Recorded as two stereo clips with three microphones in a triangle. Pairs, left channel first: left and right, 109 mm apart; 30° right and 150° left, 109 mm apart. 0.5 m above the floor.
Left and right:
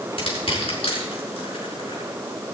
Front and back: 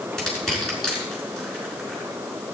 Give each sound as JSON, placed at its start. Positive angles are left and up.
{"t": 0.2, "sound": "crushing", "azimuth_deg": 55, "distance_m": 6.0}